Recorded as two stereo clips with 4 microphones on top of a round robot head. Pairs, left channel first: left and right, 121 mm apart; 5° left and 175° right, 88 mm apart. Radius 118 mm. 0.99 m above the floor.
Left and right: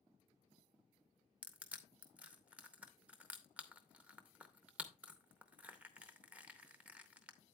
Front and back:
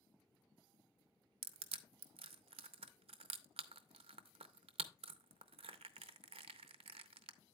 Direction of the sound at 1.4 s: 170° right.